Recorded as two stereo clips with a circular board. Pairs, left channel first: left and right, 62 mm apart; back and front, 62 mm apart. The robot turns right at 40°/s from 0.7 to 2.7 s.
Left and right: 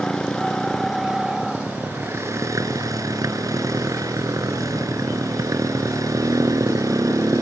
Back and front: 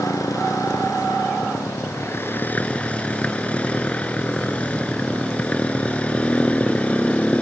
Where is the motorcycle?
170° left; by 7.4 s 110° right.